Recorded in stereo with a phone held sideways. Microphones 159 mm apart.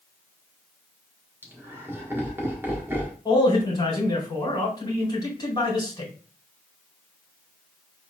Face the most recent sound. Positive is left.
turn(degrees=25)  # may be behind; listen again after turning